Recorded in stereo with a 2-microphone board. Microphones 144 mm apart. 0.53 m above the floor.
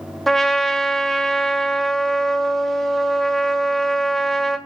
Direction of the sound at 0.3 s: Centre (ahead or behind).